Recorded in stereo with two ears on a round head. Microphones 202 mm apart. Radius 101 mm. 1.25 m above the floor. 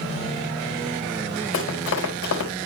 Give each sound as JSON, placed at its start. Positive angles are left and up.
{"t": 1.5, "sound": "running footsteps", "side_deg": 65, "distance_m": 4.5}